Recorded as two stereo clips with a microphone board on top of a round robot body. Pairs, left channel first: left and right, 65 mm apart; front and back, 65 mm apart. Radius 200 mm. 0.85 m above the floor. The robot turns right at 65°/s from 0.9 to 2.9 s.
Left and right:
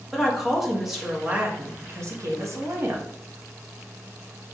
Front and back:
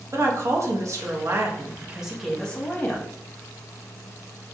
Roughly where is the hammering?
No hammering in this recording.